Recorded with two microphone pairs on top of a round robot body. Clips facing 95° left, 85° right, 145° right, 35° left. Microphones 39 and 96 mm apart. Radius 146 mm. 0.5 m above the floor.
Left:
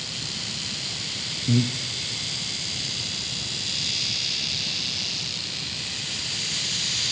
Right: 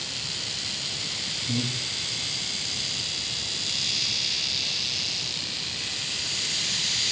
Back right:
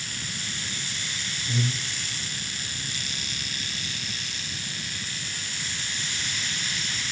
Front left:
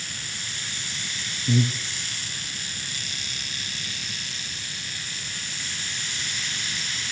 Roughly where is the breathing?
Left.